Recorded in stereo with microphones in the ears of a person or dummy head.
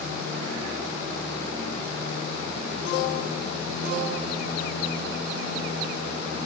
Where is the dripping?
No dripping in this recording.